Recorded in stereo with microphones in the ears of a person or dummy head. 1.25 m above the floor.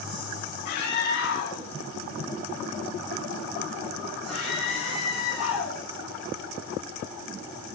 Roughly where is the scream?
Left.